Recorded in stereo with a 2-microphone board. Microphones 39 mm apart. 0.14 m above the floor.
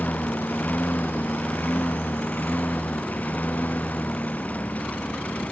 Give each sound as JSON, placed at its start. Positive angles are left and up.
{"t": 0.0, "sound": "a lawn mower", "side_deg": 50}